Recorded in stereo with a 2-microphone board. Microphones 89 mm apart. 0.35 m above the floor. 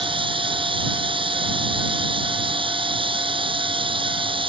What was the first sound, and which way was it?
Running water, 75° right (ahead or behind).